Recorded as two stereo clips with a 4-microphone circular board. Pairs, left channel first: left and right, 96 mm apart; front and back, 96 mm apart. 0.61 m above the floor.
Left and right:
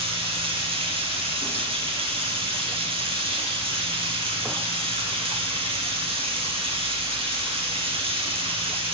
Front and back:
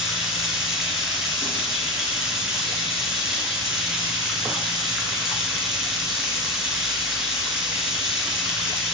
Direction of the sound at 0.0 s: 95° right.